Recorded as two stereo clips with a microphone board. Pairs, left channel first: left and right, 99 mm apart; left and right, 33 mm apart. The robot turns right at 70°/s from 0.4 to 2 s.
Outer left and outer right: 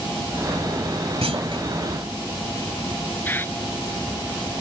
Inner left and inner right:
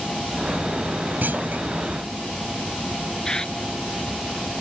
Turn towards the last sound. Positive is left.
turn(degrees=20)  # may be behind; listen again after turning